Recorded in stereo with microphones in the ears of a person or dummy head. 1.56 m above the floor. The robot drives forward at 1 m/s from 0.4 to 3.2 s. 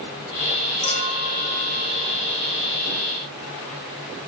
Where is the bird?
No bird in this recording.